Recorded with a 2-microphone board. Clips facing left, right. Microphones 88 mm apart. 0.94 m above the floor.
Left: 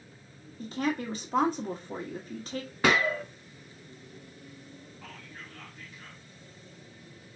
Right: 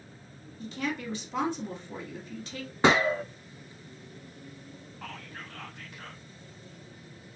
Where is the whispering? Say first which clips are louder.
Right 6 dB; 70° right (ahead or behind), 0.7 m.